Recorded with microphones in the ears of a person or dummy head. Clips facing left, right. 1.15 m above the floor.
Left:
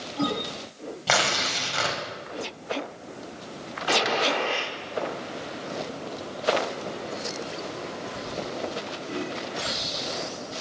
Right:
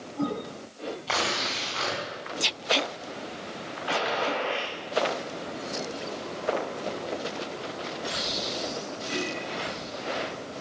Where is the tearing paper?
70° left (ahead or behind), 4 m.